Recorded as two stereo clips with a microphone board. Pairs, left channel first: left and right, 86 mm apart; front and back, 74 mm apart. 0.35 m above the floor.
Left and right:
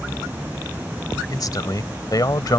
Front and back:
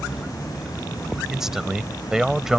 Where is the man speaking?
100° left.